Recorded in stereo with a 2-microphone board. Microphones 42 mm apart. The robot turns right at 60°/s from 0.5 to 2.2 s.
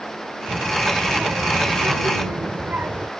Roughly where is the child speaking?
Behind.